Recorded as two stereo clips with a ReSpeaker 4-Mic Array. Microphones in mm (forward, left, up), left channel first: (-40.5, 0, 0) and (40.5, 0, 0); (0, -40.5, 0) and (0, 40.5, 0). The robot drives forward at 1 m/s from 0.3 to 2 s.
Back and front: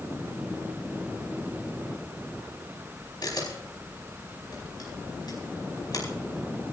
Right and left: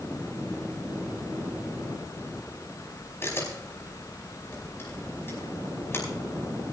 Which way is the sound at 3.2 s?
145° right.